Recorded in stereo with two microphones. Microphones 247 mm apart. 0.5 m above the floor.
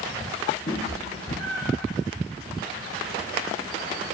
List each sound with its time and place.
0.7 s a cat meowing: 40° left (ahead or behind), 1.4 m; by 1.9 s 65° left (ahead or behind), 1.3 m